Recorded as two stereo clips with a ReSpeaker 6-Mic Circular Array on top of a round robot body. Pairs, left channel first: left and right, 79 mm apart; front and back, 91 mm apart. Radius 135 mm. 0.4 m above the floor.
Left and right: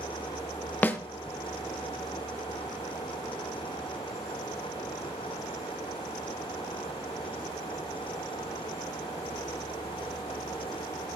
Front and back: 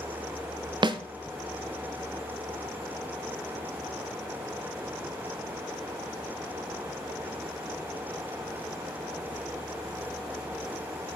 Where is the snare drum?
155° left, 0.6 m.